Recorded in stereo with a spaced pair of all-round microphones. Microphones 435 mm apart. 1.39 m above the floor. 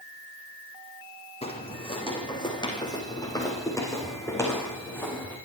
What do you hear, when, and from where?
1.4 s footsteps: 15° left (ahead or behind), 5 m; by 5.4 s 5° left (ahead or behind), 7.5 m